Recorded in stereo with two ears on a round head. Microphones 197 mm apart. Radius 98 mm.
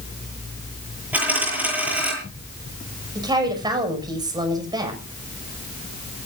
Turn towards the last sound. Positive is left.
turn(degrees=-20)  # may be behind; listen again after turning